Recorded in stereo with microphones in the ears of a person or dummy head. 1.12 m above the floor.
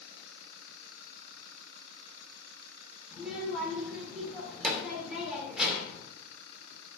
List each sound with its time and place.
3.1 s a child speaking: 5° right (ahead or behind), 2.5 m